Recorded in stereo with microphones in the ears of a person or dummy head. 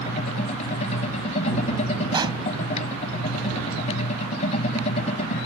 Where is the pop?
25° right (ahead or behind).